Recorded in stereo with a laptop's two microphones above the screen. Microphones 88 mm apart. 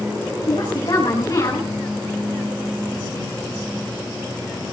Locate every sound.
0.5 s a woman speaking: 55° left (ahead or behind), 7 m